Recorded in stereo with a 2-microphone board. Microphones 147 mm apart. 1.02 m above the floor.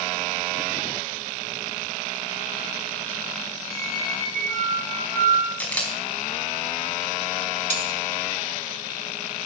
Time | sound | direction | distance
3.7 | a squeak | 25° left (ahead or behind) | 8 m
5.6 | a camera shutter | 10° left (ahead or behind) | 4.5 m
7.7 | cutlery clinking | 55° right (ahead or behind) | 3 m